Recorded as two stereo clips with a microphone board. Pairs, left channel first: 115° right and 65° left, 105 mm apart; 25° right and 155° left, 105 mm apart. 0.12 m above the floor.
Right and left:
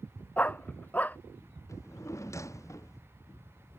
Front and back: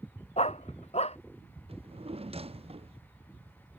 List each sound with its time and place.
0.4 s a dog barking: 35° right
1.7 s a drawer: 175° right